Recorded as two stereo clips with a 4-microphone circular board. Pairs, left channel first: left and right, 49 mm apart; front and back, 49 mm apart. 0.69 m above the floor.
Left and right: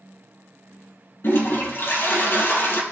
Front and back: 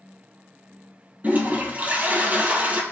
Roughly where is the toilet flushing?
Behind left.